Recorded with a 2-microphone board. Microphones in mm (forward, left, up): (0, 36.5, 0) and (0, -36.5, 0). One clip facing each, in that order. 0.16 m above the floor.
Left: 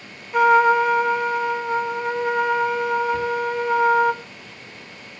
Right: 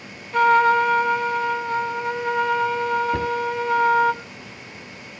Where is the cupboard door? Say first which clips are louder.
Even; 65° right (ahead or behind), 2 m.